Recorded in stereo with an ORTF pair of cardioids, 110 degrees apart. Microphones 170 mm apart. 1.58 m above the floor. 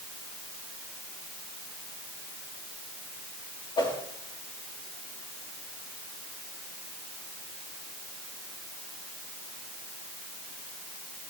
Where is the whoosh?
30° left, 3 m.